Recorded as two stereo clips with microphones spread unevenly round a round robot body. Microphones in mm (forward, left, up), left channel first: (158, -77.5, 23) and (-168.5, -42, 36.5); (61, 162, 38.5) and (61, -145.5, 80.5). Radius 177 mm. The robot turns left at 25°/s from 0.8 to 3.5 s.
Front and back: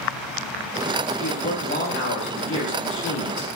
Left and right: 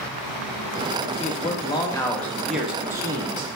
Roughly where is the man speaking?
Ahead left.